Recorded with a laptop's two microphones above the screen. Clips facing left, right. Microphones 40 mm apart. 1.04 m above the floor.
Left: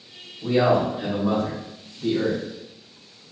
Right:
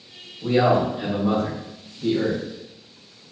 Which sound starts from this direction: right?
A man speaking, at 0.4 s.